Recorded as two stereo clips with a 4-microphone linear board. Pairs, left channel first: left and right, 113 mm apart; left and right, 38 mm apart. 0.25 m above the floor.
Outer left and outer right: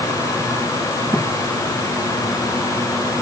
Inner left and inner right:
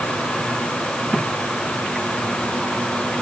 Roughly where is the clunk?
No clunk in this recording.